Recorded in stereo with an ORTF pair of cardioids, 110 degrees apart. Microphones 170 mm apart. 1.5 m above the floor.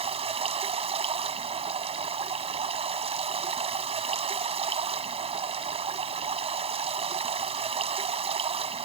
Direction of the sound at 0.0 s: 35° right.